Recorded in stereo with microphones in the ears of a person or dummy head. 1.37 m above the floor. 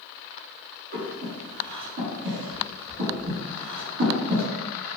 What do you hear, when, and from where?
0.9 s breathing: 50° right (ahead or behind), 1.2 m